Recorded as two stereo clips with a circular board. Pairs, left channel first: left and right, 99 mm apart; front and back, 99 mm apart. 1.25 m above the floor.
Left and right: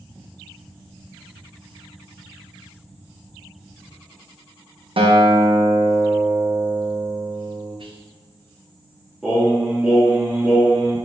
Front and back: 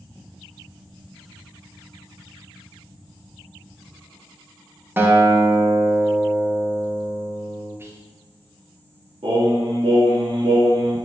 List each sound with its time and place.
5.0 s a guitar: 110° right, 0.5 m
7.8 s whispering: 115° right, 0.6 m
9.2 s singing: 175° right, 1.1 m